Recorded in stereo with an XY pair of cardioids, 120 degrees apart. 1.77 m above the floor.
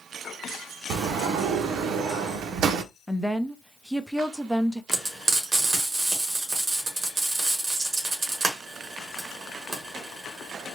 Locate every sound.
0.9 s a sliding door: 60° right, 0.6 m
3.1 s a woman speaking: 5° right, 0.5 m
4.9 s frying: 30° right, 2 m